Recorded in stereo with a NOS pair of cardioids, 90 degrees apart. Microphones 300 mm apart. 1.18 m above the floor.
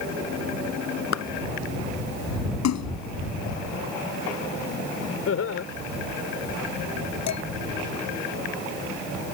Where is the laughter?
50° left.